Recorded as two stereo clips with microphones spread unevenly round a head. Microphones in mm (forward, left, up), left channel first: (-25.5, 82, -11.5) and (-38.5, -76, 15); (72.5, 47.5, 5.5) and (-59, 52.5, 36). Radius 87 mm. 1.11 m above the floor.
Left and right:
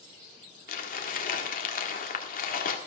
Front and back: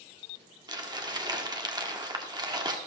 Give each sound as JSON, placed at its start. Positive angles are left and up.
{"t": 0.7, "sound": "crumpling", "azimuth_deg": 120, "distance_m": 1.6}